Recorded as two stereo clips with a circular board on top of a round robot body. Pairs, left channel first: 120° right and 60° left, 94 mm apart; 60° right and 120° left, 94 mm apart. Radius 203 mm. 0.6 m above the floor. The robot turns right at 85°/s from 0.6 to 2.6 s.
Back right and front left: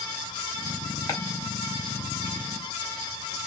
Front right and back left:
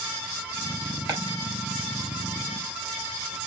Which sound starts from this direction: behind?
Chopping, at 1.1 s.